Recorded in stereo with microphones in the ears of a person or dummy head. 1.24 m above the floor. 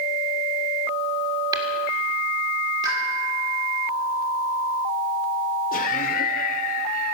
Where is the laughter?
45° left (ahead or behind), 0.5 m.